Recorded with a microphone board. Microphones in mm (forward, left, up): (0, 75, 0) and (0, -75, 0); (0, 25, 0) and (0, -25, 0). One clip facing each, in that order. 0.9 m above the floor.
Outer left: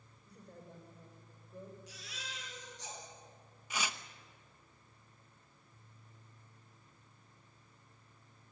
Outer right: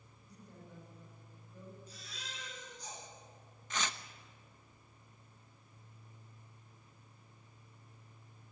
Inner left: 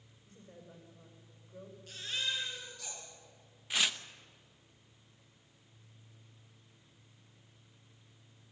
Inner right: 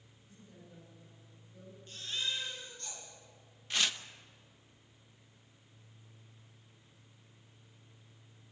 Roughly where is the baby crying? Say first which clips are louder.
Outer left 1 dB, inner left 1 dB; left.